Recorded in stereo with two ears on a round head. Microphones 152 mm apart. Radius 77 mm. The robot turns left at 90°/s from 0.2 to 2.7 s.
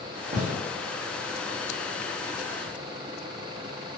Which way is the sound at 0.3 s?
40° right (ahead or behind).